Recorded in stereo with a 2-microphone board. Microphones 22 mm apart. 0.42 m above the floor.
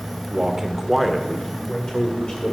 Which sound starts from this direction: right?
A man speaking, at 0.3 s.